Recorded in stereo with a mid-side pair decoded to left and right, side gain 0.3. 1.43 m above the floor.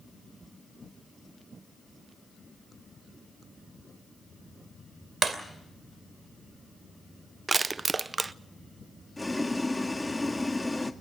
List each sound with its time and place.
5.2 s breaking glass: 60° right, 2.5 m
7.5 s crushing: 45° right, 0.6 m
9.2 s boiling: 10° left, 1.9 m